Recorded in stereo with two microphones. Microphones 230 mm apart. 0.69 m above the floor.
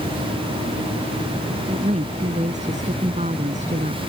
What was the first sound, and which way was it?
A woman speaking, 30° right (ahead or behind).